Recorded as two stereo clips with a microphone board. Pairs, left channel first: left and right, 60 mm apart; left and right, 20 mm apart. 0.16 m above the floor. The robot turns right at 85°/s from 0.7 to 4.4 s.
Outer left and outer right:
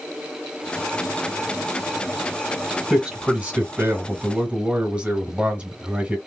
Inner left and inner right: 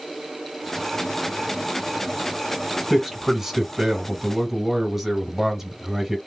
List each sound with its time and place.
2.9 s a man speaking: 5° right (ahead or behind), 1.8 m; by 6.2 s 20° right (ahead or behind), 1.8 m